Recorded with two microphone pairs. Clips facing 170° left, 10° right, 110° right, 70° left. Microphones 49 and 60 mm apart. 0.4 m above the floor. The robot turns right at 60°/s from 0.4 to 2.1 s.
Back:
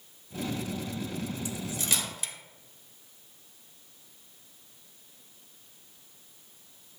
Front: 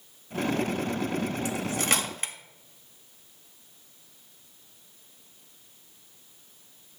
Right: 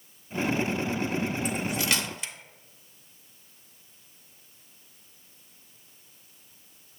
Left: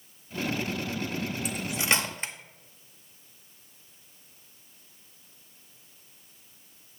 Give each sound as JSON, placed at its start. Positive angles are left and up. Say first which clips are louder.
{"t": 1.4, "sound": "cutlery clinking", "louder": "front 6 dB, even", "azimuth_deg": -15, "distance_m": 0.6}